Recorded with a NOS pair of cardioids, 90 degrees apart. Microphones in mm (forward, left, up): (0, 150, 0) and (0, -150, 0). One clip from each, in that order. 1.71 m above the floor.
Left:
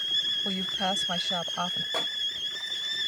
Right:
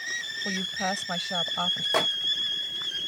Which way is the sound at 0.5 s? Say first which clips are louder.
Left 1 dB; straight ahead.